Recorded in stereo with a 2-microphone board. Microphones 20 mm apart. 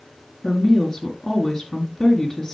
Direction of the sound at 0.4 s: 30° left (ahead or behind).